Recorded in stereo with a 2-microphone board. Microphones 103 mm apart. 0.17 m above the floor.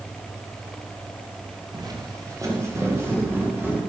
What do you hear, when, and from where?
1.7 s footsteps: 40° right (ahead or behind), 2.5 m; by 3.8 s 20° right (ahead or behind), 5.5 m